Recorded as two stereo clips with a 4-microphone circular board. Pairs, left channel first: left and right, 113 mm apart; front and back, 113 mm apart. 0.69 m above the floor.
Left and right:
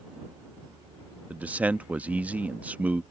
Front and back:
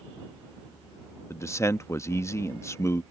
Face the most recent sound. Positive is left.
turn(degrees=-30)